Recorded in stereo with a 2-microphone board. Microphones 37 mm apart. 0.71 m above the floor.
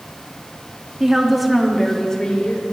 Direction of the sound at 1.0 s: 10° right (ahead or behind).